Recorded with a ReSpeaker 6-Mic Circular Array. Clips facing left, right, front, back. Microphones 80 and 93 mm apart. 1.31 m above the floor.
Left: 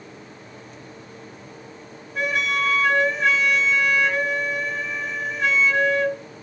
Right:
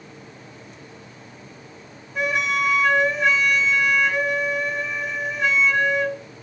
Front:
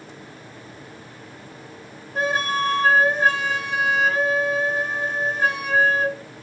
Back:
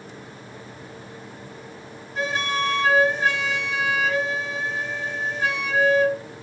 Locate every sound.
2.1 s a flute: 5° right, 1.0 m